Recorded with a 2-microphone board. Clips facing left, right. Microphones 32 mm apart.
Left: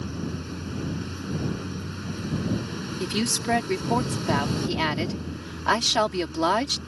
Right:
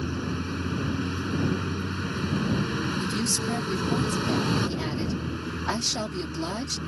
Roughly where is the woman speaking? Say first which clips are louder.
Left 1 dB; left.